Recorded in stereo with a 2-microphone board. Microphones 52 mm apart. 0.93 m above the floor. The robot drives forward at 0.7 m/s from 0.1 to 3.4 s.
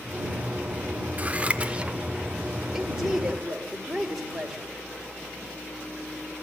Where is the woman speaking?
5° right (ahead or behind), 3 m.